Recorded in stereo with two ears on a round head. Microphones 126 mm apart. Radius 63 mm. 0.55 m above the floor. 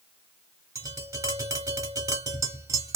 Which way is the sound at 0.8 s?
20° right (ahead or behind).